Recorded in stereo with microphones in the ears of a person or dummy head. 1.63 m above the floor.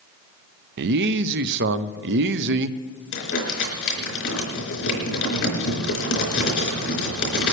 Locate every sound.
0.8 s a man speaking: 65° right (ahead or behind), 0.6 m
3.1 s crumpling: 70° left (ahead or behind), 4.5 m